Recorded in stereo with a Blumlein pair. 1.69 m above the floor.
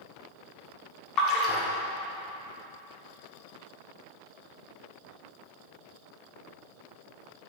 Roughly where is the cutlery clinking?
I don't hear cutlery clinking.